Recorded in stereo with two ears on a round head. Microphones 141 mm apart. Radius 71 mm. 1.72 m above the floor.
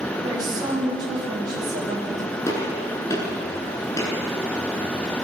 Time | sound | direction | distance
0.2 | a woman speaking | 25° right (ahead or behind) | 9 m
2.5 | a gunshot | 20° left (ahead or behind) | 9 m